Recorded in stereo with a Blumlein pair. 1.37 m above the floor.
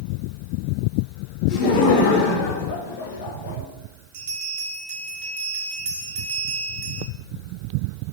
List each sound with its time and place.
1.5 s laughter: 40° left, 3 m; by 3.6 s 60° left, 2.5 m
4.1 s a bell: 50° right, 1.8 m